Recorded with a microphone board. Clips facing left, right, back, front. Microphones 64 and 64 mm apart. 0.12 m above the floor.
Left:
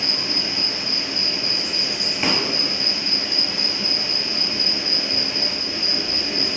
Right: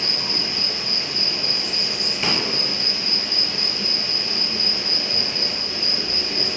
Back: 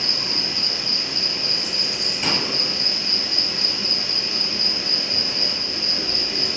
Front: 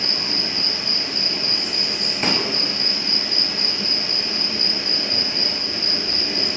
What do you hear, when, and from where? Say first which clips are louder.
0.0 s an insect: left 1 dB, front 2 dB; 30° left, 0.8 m
2.2 s a pop: left 2 dB, front 2 dB; 30° left, 0.6 m